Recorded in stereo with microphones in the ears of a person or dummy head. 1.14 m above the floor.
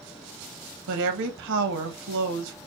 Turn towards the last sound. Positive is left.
turn(degrees=-75)  # may be behind; listen again after turning